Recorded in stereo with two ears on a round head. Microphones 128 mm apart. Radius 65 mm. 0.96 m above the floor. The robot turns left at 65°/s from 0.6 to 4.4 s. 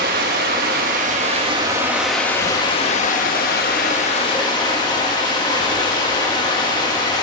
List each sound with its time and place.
0.0 s running water: 85° right, 1.2 m; by 7.2 s 30° left, 1.2 m